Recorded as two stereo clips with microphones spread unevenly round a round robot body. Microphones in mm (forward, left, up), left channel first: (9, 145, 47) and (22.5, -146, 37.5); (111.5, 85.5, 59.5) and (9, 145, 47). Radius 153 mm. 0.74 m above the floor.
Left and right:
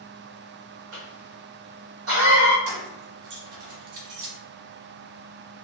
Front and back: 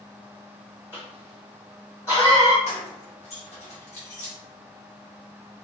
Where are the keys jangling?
70° right, 1.0 m.